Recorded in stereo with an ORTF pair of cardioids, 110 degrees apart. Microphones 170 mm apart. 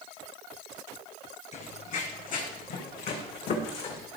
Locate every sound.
1.5 s running footsteps: 45° left, 4 m; by 4.1 s 70° left, 4.5 m